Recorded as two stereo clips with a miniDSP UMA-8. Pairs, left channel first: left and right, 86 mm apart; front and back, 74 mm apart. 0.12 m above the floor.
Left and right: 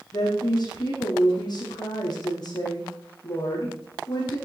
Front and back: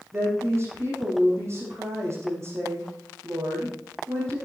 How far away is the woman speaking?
About 5 m.